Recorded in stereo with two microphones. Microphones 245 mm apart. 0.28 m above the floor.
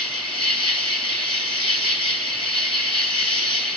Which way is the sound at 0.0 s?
20° left (ahead or behind).